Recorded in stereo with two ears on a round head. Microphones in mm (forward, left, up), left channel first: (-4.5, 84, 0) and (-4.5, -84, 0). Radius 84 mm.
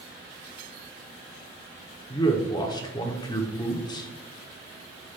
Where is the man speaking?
20° left (ahead or behind), 0.9 m.